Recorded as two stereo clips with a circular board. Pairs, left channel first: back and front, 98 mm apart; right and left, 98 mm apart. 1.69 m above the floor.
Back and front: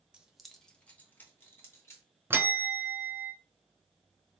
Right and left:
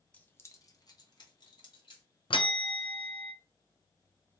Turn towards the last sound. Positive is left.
turn(degrees=-65)